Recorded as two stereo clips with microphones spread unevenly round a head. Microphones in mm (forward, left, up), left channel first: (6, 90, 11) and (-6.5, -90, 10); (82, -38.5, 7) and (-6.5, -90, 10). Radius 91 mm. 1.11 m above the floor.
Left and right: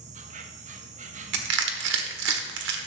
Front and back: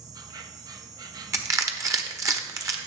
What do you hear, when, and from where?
0.0 s an insect: 115° right, 0.9 m
1.3 s crushing: 90° right, 1.3 m